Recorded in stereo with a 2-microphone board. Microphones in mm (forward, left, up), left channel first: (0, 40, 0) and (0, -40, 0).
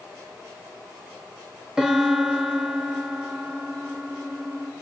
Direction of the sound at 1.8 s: 10° right (ahead or behind).